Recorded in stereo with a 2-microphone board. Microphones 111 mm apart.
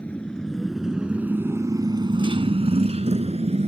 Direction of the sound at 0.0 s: 15° left (ahead or behind).